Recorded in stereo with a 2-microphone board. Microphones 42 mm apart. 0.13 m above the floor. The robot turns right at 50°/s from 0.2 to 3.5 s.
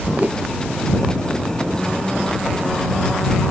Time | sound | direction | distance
0.2 | a whoosh | 40° right (ahead or behind) | ?